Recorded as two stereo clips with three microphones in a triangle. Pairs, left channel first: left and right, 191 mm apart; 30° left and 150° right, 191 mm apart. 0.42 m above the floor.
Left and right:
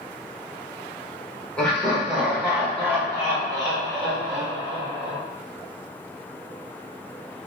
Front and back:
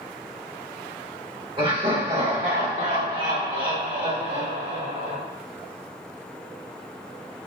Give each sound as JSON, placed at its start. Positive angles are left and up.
{"t": 1.6, "sound": "laughter", "azimuth_deg": 175, "distance_m": 1.6}